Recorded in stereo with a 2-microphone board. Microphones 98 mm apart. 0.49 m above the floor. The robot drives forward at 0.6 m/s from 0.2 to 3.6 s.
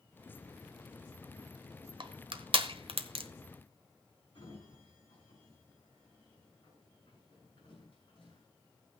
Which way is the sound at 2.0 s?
55° right (ahead or behind).